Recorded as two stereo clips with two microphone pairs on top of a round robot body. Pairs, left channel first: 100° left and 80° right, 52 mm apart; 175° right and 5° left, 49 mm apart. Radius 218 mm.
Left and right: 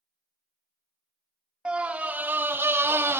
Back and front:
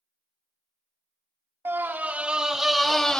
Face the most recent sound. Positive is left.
turn(degrees=-105)